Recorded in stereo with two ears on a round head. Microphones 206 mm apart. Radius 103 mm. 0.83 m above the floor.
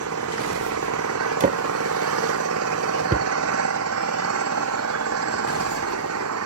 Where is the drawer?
35° right (ahead or behind).